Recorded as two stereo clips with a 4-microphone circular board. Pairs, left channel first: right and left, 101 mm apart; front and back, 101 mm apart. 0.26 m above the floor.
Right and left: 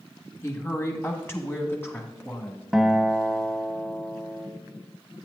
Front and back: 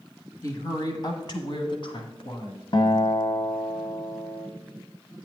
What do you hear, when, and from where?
0.4 s a woman speaking: 40° right, 1.3 m; by 2.6 s 20° right, 2 m
2.7 s a guitar: 5° left, 0.9 m